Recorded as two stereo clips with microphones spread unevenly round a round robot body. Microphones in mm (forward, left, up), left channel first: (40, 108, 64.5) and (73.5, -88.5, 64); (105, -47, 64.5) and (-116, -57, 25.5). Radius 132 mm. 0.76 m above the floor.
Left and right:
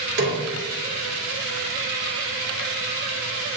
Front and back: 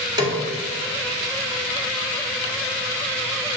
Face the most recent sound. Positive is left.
turn(degrees=-105)